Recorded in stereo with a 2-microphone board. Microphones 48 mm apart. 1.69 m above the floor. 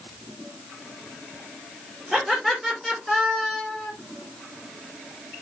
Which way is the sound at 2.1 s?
10° right (ahead or behind).